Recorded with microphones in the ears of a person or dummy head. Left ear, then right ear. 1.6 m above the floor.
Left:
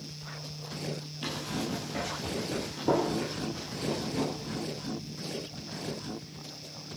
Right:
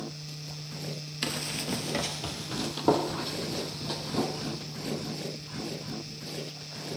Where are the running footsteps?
45° right (ahead or behind), 2.5 m; by 4.6 s 60° right (ahead or behind), 4.5 m.